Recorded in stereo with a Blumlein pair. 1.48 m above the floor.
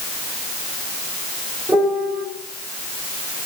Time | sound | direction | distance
1.7 | a piano | 10° right | 3 m